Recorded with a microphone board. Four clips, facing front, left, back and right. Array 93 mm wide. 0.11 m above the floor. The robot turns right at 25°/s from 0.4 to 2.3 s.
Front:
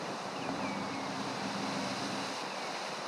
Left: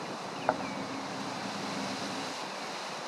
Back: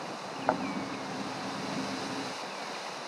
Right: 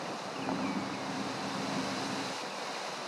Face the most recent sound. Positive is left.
turn(degrees=-170)